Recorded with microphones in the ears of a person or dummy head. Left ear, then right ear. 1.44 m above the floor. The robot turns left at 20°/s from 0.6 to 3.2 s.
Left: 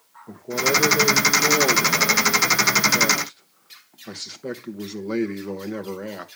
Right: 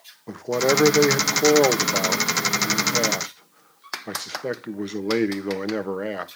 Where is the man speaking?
100° right, 1.0 m; by 6.3 s 150° right, 1.0 m.